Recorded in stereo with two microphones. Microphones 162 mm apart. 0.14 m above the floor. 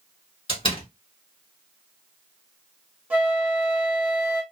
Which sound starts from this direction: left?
A door slam, at 0.5 s.